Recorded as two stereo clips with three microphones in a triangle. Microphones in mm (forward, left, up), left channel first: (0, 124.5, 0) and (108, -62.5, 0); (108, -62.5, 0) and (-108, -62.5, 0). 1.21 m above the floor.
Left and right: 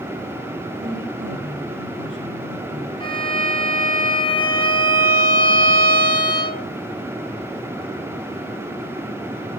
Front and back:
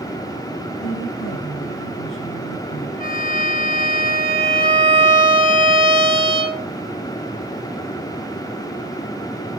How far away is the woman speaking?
About 7.5 m.